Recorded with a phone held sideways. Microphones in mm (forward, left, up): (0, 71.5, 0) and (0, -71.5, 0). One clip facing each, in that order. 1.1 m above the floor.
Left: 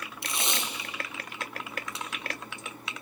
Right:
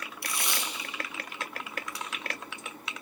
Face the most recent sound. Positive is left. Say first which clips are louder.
# left 2 dB
turn(degrees=20)  # may be behind; listen again after turning